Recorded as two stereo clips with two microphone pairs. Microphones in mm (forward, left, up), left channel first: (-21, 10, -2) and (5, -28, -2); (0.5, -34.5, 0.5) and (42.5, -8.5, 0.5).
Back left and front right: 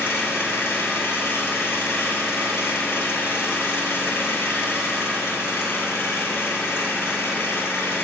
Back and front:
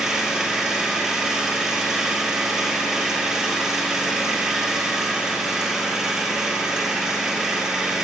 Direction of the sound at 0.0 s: 110° left.